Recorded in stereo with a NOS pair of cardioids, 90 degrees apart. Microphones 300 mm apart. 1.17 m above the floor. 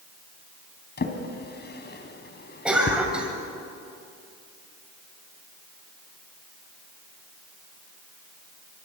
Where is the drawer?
35° left, 3 m.